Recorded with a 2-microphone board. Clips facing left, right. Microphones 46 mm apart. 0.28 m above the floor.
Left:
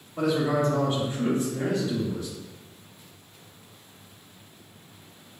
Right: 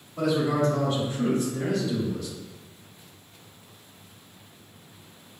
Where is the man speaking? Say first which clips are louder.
Even; 25° left (ahead or behind), 1.1 m.